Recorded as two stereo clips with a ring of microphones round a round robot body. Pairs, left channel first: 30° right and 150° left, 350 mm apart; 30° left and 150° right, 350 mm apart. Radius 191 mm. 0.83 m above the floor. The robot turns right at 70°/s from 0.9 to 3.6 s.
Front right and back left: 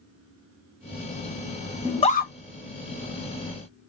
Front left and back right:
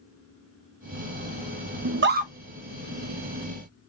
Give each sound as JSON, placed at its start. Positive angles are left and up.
{"t": 1.9, "sound": "a scream", "azimuth_deg": -115, "distance_m": 0.7}